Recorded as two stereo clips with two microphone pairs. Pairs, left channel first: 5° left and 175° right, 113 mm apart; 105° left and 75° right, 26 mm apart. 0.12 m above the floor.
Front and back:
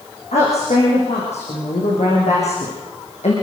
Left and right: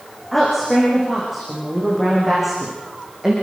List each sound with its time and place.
0.3 s a woman speaking: 15° left, 8 m; by 3.3 s straight ahead, 6.5 m